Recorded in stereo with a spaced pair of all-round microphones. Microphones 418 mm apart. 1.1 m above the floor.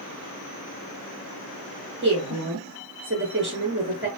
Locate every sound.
2.0 s a woman speaking: 30° right (ahead or behind), 0.7 m